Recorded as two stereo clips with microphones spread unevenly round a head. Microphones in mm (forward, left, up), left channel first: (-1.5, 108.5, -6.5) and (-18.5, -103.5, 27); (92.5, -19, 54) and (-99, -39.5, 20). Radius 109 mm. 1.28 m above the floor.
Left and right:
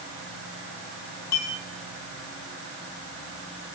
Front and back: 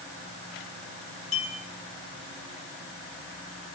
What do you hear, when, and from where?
1.3 s a clink: 65° left, 6.5 m